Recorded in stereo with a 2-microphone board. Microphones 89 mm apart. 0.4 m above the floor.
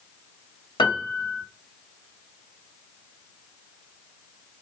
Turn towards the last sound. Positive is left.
turn(degrees=65)  # may be behind; listen again after turning